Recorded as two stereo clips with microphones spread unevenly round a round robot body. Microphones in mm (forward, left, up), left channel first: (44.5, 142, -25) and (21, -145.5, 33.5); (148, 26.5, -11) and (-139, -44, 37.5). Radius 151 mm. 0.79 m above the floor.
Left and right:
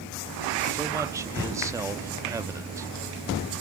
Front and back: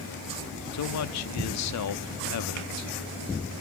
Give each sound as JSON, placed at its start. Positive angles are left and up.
{"t": 0.7, "sound": "a man speaking", "azimuth_deg": -10, "distance_m": 0.9}